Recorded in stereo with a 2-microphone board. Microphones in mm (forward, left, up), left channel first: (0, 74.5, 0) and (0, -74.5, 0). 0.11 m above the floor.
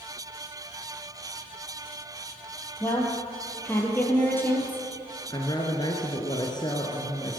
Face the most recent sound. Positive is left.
turn(degrees=30)  # may be behind; listen again after turning